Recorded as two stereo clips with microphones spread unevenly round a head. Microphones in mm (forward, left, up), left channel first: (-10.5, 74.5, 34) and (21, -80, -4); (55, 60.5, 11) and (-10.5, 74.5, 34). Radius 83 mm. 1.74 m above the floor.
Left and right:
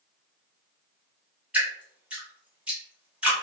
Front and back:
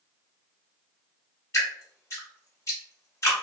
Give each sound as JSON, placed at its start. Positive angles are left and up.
{"t": 1.5, "sound": "dripping", "azimuth_deg": 25, "distance_m": 1.2}